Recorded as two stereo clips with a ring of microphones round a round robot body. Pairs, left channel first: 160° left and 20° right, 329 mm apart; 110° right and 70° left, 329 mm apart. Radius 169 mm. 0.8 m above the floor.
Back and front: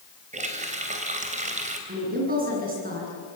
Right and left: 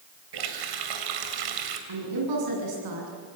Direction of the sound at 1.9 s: 45° left.